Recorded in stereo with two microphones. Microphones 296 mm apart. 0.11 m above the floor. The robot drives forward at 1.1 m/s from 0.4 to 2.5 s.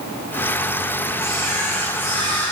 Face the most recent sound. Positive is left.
turn(degrees=5)  # may be behind; listen again after turning